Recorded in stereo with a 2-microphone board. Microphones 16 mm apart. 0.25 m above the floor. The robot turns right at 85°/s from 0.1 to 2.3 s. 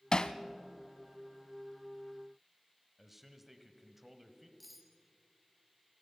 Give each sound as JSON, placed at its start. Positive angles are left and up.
{"t": 0.1, "sound": "hammering", "side_deg": 55, "distance_m": 0.8}
{"t": 3.0, "sound": "a man speaking", "side_deg": -10, "distance_m": 1.5}
{"t": 4.6, "sound": "cutlery clinking", "side_deg": 5, "distance_m": 2.0}